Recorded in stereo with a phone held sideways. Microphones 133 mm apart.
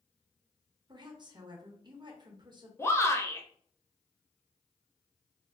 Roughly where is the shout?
Left.